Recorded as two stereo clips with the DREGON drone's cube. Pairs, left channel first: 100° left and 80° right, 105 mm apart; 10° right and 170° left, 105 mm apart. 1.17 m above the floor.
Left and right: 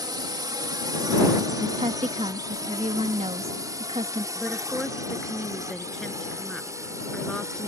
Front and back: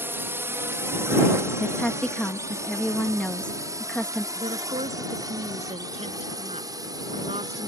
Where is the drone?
125° right; by 7.7 s 140° right.